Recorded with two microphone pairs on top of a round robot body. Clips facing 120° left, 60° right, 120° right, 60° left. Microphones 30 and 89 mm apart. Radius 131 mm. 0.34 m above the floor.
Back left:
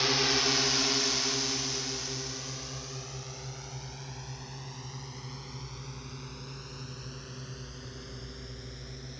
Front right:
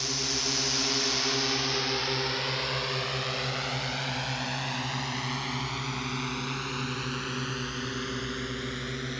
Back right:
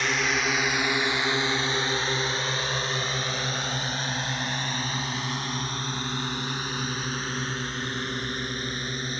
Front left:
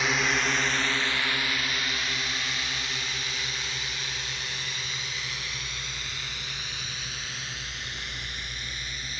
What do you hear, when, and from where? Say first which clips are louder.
0.0 s a drone: back left 4 dB, even; 155° left; by 9.2 s 65° right